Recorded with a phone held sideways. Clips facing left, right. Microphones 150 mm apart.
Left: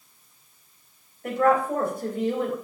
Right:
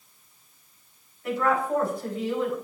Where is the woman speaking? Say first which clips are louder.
Left 4 dB; 55° left (ahead or behind), 4 m.